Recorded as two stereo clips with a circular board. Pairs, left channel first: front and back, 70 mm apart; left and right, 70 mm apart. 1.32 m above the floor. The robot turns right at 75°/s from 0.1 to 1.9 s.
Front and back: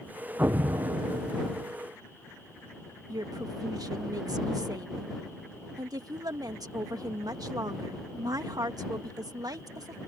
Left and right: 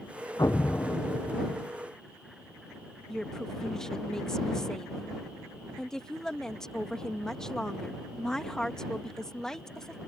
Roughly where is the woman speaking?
Behind.